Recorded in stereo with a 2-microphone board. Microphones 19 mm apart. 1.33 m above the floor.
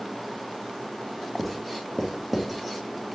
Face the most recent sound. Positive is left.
turn(degrees=0)  # may be behind; listen again after turning